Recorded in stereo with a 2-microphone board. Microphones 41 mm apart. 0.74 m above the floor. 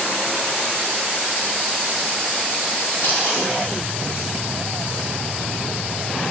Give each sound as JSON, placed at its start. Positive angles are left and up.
{"t": 3.0, "sound": "chewing", "side_deg": 85, "distance_m": 4.0}